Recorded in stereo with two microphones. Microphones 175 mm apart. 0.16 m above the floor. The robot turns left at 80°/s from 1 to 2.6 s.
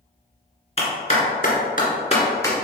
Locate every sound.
0.8 s a clap: 35° left (ahead or behind), 1.7 m; by 2.5 s 10° left (ahead or behind), 1.7 m